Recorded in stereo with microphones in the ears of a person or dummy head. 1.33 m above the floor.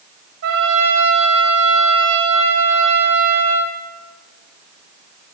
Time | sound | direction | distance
0.4 | a trumpet | 55° right (ahead or behind) | 3 m